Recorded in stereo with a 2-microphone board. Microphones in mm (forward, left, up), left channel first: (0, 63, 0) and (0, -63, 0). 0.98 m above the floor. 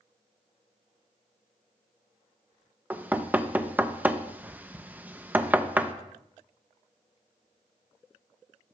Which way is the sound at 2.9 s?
10° right (ahead or behind).